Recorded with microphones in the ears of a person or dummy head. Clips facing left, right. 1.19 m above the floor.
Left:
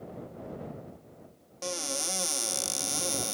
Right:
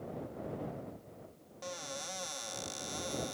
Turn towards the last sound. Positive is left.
turn(degrees=55)  # may be behind; listen again after turning